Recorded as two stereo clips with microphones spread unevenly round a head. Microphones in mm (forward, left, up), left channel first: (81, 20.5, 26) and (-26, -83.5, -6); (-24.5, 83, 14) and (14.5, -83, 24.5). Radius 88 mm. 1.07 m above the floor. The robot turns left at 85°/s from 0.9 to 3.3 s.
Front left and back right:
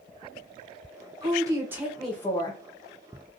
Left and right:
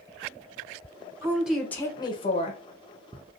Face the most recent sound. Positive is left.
turn(degrees=40)